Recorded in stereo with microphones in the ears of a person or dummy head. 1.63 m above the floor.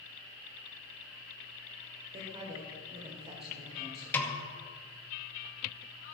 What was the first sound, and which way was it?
A woman speaking, 30° right (ahead or behind).